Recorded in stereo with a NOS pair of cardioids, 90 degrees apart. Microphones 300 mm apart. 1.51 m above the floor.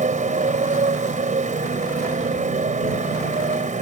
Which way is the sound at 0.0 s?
25° right.